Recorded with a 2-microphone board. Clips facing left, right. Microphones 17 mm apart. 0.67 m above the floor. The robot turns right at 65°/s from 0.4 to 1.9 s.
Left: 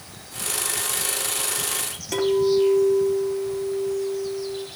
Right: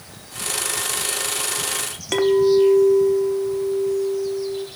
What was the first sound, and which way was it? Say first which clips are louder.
A clink: right 4 dB; 40° right (ahead or behind).